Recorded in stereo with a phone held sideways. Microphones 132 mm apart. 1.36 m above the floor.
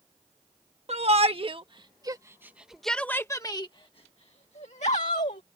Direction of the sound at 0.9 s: 55° right (ahead or behind).